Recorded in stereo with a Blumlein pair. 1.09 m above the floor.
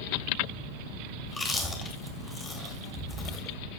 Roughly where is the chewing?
Ahead.